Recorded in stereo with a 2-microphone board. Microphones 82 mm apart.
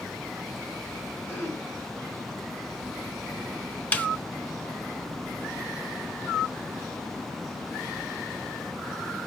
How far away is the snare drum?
About 0.7 m.